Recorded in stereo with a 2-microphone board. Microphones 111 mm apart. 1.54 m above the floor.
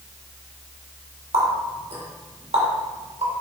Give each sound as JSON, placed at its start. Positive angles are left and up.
{"t": 1.3, "sound": "a running tap", "side_deg": -60, "distance_m": 2.5}